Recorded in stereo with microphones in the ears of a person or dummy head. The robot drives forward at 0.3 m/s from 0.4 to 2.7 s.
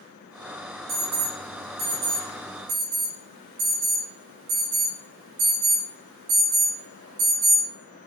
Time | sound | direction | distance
0.9 | an alarm | 65° right (ahead or behind) | 4.5 m